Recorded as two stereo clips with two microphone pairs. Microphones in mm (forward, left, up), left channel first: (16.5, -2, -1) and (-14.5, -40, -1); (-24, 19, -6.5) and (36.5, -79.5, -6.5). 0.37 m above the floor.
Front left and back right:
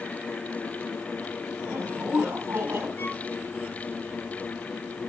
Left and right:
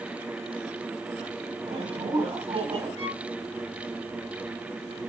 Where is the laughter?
95° right, 4 m.